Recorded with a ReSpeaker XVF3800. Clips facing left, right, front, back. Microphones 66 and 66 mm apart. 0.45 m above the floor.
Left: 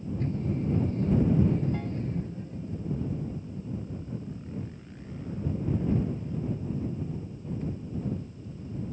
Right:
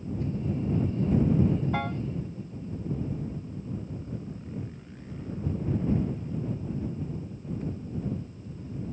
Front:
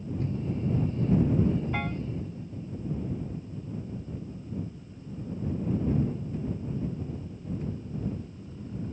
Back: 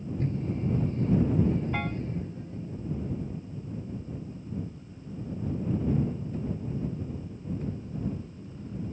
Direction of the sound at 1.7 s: 90° right.